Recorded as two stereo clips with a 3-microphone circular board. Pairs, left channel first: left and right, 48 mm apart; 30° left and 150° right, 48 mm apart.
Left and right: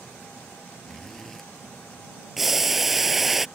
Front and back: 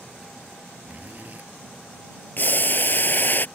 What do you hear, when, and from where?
0.8 s a zipper: 170° left
2.4 s boiling: 5° right